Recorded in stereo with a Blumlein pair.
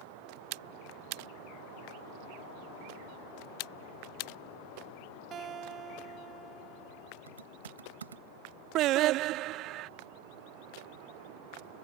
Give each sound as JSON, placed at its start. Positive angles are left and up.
{"t": 5.3, "sound": "a guitar", "azimuth_deg": -25}
{"t": 7.3, "sound": "typing on a keyboard", "azimuth_deg": -70}
{"t": 8.8, "sound": "singing", "azimuth_deg": -35}